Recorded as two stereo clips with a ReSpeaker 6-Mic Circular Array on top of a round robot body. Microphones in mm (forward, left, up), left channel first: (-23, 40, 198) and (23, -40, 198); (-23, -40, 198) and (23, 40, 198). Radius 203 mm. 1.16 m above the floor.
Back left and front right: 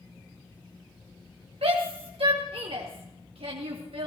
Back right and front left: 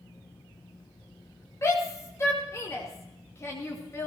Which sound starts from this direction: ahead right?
A shout, at 1.6 s.